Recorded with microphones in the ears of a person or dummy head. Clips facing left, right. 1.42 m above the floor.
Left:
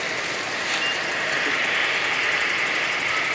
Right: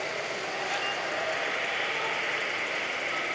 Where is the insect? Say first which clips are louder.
Left 3 dB; 70° left (ahead or behind).